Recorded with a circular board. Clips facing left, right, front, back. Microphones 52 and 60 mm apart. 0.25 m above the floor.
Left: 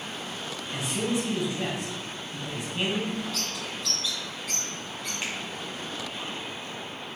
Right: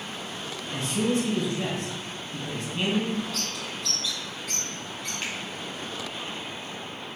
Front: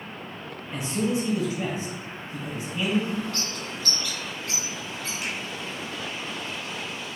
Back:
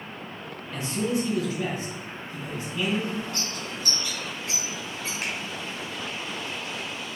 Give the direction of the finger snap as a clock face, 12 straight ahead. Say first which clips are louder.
Even, back 1 dB; 6 o'clock.